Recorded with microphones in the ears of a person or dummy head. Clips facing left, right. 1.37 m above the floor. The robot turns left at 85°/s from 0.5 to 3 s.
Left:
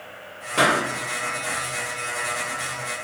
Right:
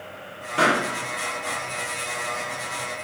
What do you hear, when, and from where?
0.6 s a pop: 65° left (ahead or behind), 0.7 m; by 0.8 s 70° left (ahead or behind), 0.7 m